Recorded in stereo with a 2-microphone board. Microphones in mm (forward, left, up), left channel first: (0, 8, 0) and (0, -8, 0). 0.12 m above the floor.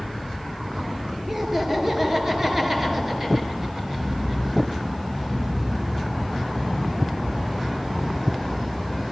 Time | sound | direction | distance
1.3 | laughter | 20° right (ahead or behind) | 2.5 m